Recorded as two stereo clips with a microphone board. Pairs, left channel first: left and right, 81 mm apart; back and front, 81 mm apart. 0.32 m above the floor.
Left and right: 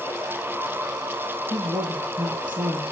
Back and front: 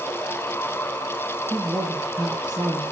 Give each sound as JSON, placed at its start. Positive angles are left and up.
{"t": 1.5, "sound": "a woman speaking", "azimuth_deg": -85, "distance_m": 6.5}